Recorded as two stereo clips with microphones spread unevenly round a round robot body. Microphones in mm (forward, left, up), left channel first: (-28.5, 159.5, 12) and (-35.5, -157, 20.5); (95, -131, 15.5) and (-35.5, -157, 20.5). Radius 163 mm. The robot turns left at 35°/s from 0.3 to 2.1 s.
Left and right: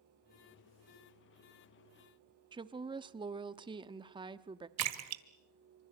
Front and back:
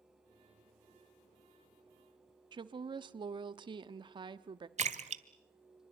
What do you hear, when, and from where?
2.5 s a woman speaking: 155° right, 0.9 m
4.8 s a splash: 135° right, 1.6 m